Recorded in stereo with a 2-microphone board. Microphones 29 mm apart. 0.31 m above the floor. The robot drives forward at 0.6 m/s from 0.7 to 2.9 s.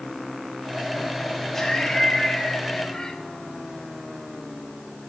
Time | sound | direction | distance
1.5 | laughter | 15° left (ahead or behind) | 2.5 m